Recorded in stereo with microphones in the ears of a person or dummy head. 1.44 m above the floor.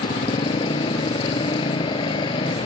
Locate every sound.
0.0 s a motorcycle: 30° left (ahead or behind)